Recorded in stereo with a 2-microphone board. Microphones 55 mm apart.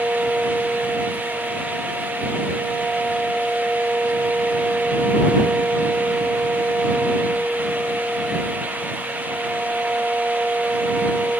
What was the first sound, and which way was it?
Only background noise.